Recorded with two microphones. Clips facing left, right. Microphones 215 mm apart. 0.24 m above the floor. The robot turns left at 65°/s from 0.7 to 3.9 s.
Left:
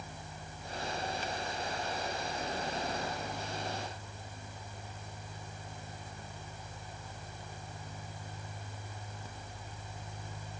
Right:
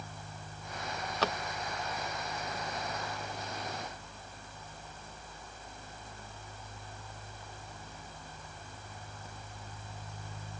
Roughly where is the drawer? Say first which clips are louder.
Right 6 dB; right.